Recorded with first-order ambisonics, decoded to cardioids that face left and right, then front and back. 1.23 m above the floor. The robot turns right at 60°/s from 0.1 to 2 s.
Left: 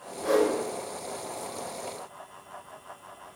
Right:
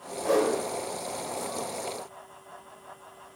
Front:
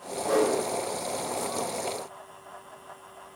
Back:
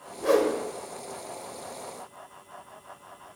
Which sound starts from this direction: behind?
A whoosh, at 0.2 s.